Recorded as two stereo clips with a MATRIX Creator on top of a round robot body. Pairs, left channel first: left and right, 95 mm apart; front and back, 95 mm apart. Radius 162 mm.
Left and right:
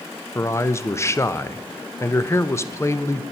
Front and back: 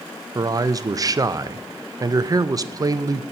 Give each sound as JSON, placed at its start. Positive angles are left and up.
{"t": 0.3, "sound": "a man speaking", "azimuth_deg": 140, "distance_m": 0.7}